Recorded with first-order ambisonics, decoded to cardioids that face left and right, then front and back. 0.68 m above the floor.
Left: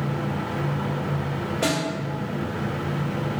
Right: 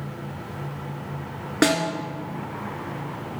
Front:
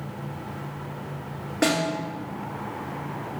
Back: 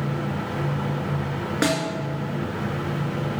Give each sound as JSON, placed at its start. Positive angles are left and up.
{"t": 1.6, "sound": "a snare drum", "azimuth_deg": -115, "distance_m": 1.7}